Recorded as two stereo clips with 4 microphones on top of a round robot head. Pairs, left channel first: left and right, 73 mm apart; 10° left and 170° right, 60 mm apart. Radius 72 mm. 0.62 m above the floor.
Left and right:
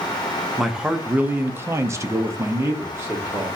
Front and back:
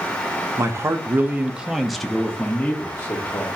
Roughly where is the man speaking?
Behind.